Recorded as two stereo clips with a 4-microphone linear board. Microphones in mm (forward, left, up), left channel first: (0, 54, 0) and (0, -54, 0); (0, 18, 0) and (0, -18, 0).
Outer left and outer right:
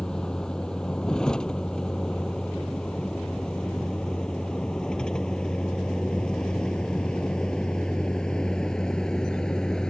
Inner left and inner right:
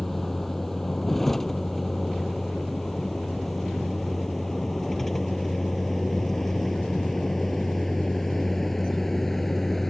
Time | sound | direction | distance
0.0 | a vehicle | 5° left (ahead or behind) | ?